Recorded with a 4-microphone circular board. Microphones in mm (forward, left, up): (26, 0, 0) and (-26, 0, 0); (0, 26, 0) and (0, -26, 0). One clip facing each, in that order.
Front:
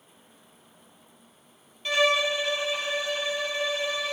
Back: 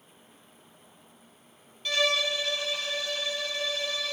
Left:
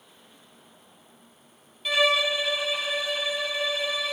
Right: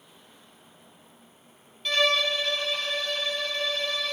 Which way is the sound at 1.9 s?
25° left.